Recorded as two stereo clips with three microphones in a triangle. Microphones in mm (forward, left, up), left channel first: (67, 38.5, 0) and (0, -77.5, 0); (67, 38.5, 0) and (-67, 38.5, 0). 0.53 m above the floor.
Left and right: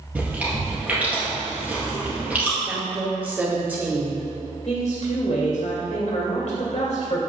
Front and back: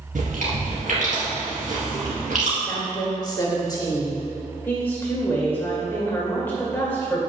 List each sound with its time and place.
0.1 s chewing: 160° left, 3 m
2.6 s a woman speaking: 50° right, 1.2 m
4.7 s a woman speaking: 75° left, 2 m